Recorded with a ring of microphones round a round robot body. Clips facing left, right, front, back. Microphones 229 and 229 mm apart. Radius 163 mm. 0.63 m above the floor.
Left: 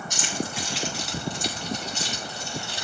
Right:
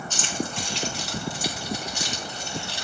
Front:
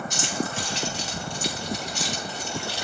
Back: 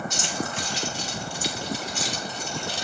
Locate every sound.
0.1 s keys jangling: 15° left, 4 m; by 2.9 s 30° right, 4 m